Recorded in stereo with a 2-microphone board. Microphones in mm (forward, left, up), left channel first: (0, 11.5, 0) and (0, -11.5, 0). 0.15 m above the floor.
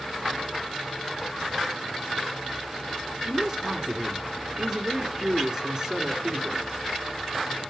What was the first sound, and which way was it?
A man speaking, 25° right (ahead or behind).